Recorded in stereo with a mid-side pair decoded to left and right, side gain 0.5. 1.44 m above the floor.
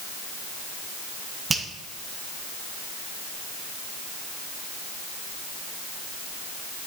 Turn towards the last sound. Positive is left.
turn(degrees=-25)